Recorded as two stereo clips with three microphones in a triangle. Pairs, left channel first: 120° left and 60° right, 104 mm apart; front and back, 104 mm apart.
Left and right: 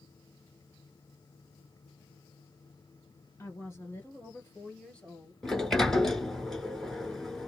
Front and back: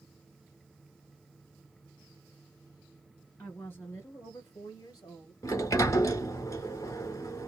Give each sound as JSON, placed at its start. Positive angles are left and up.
{"t": 3.4, "sound": "a woman speaking", "azimuth_deg": 65, "distance_m": 2.5}
{"t": 5.4, "sound": "a sliding door", "azimuth_deg": 40, "distance_m": 1.2}